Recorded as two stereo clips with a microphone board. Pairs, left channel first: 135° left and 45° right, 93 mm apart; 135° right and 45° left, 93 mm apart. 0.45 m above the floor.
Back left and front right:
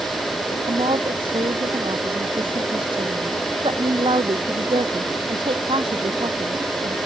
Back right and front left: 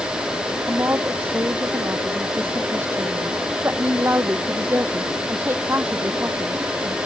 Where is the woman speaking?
20° right.